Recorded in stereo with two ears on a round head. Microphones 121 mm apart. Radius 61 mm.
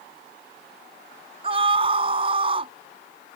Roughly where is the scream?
Right.